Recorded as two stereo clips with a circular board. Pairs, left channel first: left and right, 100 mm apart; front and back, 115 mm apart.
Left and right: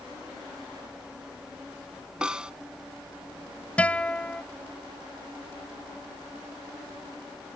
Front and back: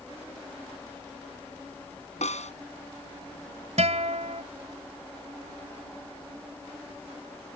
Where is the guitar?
165° left.